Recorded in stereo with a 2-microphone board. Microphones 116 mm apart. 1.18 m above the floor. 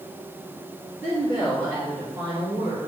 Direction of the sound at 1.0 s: 25° right (ahead or behind).